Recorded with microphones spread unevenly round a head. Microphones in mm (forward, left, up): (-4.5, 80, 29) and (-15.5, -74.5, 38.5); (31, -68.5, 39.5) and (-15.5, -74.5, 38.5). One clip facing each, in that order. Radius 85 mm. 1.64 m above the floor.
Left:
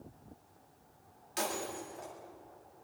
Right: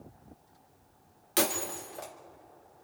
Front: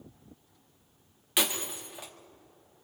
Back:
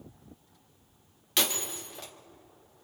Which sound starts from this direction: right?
Breaking glass, at 1.4 s.